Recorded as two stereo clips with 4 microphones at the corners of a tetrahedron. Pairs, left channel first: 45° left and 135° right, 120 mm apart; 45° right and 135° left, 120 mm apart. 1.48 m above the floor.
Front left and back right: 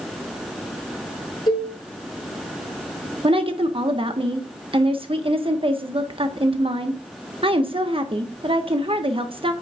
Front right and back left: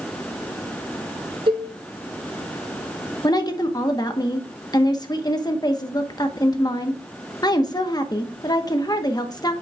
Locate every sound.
1.5 s a cowbell: 95° left, 3 m
3.2 s a woman speaking: 100° right, 1.1 m